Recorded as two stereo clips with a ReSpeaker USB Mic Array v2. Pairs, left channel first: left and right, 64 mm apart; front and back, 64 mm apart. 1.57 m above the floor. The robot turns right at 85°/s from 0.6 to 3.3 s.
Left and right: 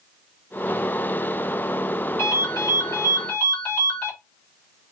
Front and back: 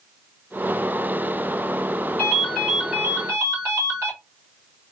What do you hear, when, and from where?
2.2 s a ringtone: 55° left, 1.3 m; by 4.1 s 150° left, 1.3 m